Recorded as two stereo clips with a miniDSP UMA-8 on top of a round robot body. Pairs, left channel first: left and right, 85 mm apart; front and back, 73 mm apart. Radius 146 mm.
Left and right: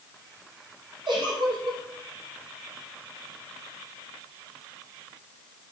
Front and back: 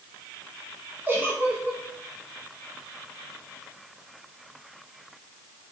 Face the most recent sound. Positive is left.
turn(degrees=-120)